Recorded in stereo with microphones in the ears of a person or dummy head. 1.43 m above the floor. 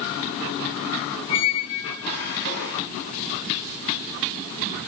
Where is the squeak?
55° left (ahead or behind), 1.6 m.